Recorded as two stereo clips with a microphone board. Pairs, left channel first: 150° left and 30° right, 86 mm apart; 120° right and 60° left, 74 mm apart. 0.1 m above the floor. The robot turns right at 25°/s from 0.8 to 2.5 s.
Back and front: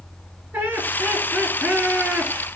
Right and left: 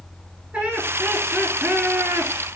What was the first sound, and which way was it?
Laughter, 10° left.